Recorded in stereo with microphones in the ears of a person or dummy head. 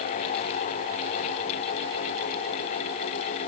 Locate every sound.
Only background noise.